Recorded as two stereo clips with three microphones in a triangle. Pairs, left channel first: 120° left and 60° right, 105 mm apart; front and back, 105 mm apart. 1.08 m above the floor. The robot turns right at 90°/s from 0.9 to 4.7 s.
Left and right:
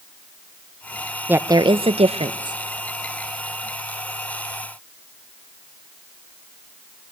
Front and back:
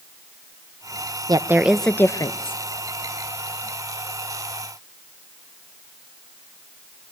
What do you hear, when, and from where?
1.3 s a woman speaking: 135° right, 0.5 m; by 2.6 s 20° right, 0.5 m